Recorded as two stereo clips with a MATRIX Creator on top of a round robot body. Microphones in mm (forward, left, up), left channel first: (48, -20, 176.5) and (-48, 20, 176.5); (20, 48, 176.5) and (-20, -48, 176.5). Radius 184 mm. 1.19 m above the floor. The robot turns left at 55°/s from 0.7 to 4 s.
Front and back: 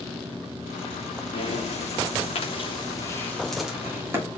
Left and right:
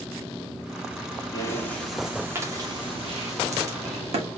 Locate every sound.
1.3 s breathing: 10° left, 1.9 m; by 4.3 s 135° right, 1.9 m